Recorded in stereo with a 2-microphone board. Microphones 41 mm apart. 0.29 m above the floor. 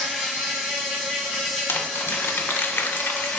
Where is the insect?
15° right (ahead or behind), 1.8 m.